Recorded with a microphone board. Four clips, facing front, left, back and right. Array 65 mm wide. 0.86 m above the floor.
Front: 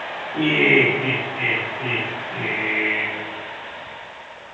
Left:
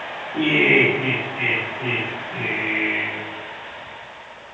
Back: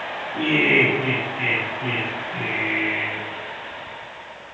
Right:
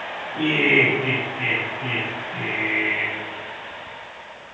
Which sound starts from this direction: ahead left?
Laughter, at 0.3 s.